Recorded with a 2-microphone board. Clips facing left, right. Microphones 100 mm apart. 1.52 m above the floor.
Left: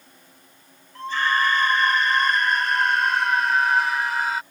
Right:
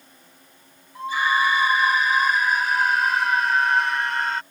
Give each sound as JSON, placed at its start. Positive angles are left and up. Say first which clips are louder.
{"t": 0.9, "sound": "a scream", "louder": "right 1 dB", "side_deg": -10}